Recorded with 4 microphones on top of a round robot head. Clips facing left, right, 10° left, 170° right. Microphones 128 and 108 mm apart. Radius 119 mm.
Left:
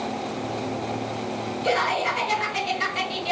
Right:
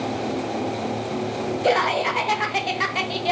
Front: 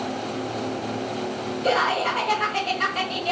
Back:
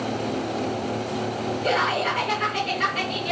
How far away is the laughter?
About 0.8 m.